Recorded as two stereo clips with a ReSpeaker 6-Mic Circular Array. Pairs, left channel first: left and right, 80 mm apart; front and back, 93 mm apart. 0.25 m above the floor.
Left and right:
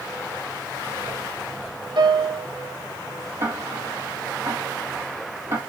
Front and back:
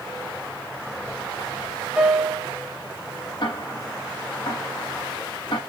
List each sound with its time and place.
2.0 s a piano: 100° right, 1.7 m
3.4 s ticking: 40° right, 4 m